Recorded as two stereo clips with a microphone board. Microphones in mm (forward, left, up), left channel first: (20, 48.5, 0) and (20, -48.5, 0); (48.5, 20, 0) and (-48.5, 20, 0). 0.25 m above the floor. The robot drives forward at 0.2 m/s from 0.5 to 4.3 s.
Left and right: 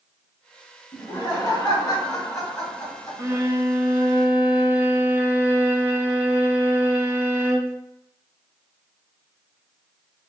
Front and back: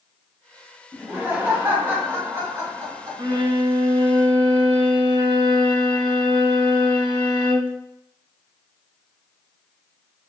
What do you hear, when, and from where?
0.9 s laughter: 115° left, 1.3 m; by 3.4 s 135° left, 1.5 m
3.2 s a violin: 145° right, 0.5 m; by 7.8 s 155° right, 0.7 m